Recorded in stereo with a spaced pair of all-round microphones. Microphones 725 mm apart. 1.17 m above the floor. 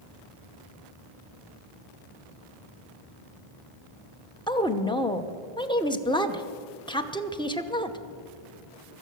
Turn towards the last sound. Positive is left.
turn(degrees=5)  # may be behind; listen again after turning